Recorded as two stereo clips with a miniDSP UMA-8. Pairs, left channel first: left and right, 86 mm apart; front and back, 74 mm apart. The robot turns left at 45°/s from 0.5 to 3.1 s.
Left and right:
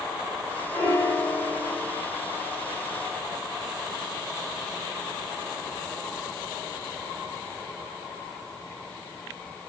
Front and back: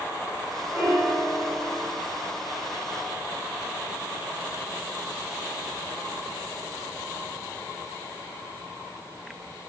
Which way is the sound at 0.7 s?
115° left.